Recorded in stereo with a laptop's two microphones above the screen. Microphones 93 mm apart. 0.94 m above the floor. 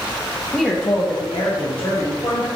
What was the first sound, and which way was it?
A woman speaking, 10° left (ahead or behind).